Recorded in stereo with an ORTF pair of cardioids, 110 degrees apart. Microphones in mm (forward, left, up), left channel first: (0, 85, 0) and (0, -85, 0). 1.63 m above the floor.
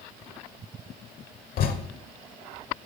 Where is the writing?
65° left, 1.0 m.